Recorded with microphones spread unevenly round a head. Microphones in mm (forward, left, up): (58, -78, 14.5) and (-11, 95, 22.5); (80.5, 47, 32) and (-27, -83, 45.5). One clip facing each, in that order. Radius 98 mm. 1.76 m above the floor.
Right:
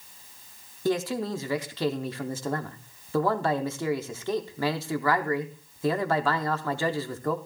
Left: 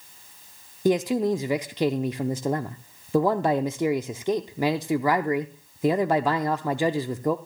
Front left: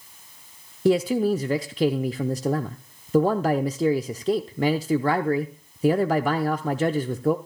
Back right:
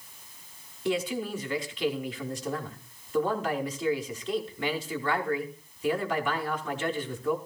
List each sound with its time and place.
0.8 s a man speaking: 65° left, 0.6 m